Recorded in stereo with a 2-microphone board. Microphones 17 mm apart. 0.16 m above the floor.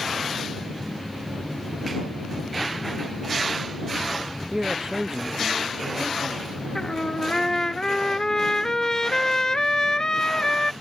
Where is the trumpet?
40° left (ahead or behind).